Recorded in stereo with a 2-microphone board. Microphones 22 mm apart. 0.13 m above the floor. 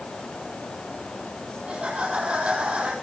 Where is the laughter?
70° right (ahead or behind), 4.5 m.